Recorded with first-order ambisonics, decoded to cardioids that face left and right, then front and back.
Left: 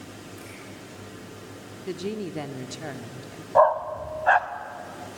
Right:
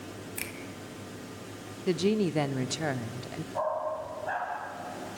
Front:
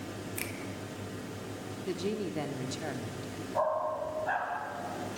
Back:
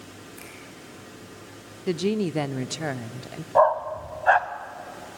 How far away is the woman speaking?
About 0.7 m.